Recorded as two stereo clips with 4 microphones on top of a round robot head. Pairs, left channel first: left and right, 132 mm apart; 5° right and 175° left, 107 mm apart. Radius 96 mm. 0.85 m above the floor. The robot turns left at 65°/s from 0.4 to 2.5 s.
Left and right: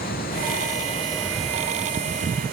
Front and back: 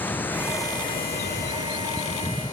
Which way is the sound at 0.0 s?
65° left.